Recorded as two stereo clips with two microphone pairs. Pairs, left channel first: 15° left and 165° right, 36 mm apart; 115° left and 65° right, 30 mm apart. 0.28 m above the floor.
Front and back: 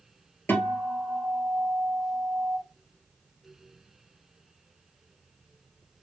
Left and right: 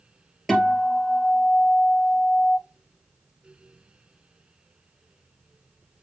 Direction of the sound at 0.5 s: 35° left.